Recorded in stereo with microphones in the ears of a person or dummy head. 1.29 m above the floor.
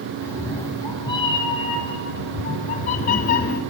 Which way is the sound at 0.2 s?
20° left (ahead or behind).